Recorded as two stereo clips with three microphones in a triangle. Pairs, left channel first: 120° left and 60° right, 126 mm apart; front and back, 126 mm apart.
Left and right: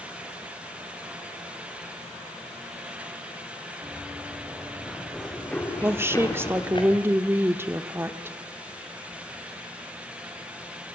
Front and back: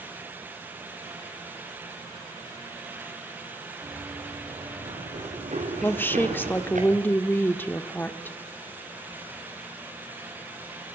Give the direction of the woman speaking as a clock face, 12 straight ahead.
1 o'clock.